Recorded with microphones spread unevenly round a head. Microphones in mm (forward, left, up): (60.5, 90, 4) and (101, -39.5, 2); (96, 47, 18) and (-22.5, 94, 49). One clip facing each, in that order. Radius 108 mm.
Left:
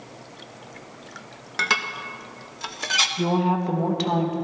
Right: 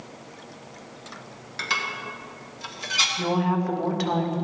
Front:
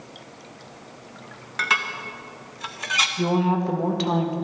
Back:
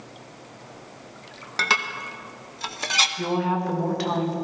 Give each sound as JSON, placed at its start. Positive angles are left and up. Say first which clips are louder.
{"t": 1.6, "sound": "dishes clattering", "louder": "left 3 dB, back 1 dB", "azimuth_deg": 130, "distance_m": 0.6}
{"t": 3.2, "sound": "a woman speaking", "louder": "left 2 dB, front 3 dB", "azimuth_deg": 45, "distance_m": 1.4}